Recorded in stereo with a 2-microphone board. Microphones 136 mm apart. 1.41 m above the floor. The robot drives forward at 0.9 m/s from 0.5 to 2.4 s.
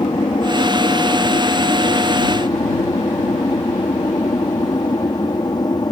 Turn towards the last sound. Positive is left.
turn(degrees=30)  # may be behind; listen again after turning